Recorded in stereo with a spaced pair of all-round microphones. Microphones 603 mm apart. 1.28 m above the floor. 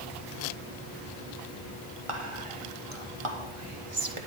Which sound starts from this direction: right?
Whispering, at 2.1 s.